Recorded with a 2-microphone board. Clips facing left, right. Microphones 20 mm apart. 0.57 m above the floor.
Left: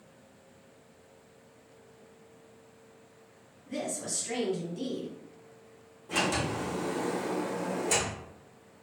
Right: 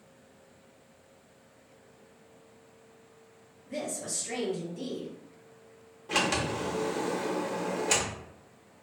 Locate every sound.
3.7 s a woman speaking: 30° left (ahead or behind), 1.3 m
6.1 s a sliding door: 45° right (ahead or behind), 0.6 m